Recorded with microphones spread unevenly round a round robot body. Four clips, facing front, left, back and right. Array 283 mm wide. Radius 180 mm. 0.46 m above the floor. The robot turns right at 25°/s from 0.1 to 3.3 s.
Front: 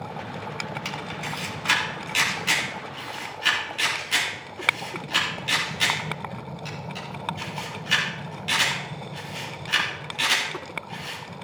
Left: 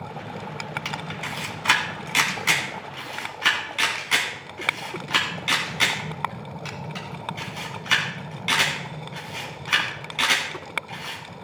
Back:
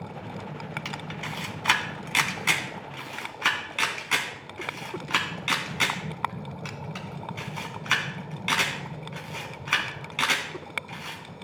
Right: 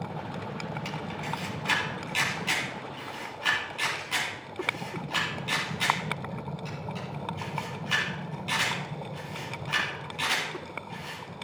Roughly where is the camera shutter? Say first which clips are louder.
Left 2 dB, front 3 dB; left.